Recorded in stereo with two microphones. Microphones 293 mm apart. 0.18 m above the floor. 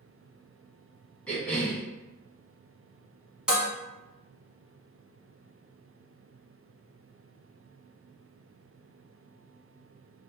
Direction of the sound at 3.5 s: 5° right (ahead or behind).